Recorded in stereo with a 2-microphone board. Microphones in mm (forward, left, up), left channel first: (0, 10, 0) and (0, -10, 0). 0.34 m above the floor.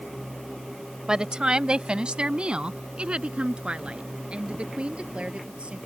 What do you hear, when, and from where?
1.1 s a woman speaking: 40° right (ahead or behind); by 5.8 s 80° right